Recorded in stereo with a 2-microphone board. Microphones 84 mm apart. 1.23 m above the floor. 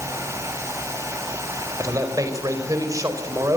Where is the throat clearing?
No throat clearing in this recording.